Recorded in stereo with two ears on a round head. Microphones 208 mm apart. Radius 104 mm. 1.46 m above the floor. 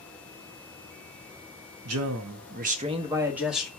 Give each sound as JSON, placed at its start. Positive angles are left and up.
{"t": 1.9, "sound": "a man speaking", "side_deg": -70, "distance_m": 0.7}